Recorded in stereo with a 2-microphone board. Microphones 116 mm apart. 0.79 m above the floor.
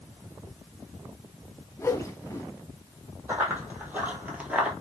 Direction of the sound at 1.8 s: 25° left (ahead or behind).